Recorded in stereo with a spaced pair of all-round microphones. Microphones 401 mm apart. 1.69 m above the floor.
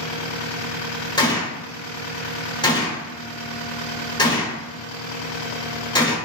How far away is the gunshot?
About 0.9 m.